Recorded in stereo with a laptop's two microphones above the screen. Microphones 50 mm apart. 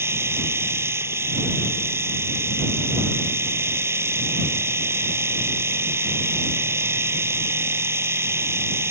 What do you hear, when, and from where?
0.0 s a machine running: 60° right (ahead or behind)